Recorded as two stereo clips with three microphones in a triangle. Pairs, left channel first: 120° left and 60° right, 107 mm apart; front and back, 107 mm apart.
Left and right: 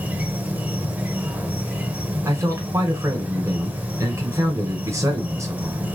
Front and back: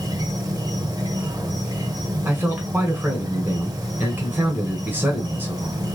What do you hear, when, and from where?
0.0 s an insect: 135° right, 0.7 m
2.2 s a man speaking: 115° right, 1.9 m